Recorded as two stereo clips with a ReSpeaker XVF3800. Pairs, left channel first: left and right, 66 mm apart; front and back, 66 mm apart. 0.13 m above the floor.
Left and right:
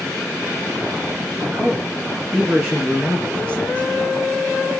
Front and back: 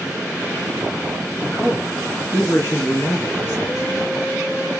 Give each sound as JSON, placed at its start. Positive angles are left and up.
{"t": 1.4, "sound": "a man speaking", "azimuth_deg": -55, "distance_m": 2.0}